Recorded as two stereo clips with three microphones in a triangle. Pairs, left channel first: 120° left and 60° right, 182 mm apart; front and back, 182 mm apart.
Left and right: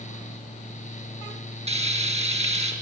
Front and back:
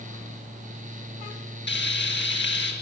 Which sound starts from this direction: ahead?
Frying, at 1.7 s.